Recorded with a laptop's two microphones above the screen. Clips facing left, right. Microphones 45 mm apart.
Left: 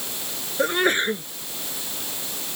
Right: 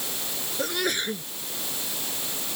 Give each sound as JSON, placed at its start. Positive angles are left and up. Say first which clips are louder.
{"t": 0.6, "sound": "a sneeze", "louder": "left 7 dB", "side_deg": 35}